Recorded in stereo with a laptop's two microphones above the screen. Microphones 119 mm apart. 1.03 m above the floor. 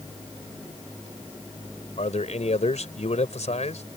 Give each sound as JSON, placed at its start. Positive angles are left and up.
{"t": 2.0, "sound": "a man speaking", "side_deg": 70}